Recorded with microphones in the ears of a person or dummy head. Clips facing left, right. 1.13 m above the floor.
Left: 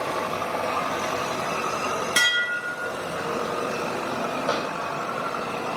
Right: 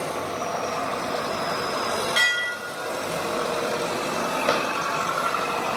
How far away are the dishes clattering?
About 0.6 m.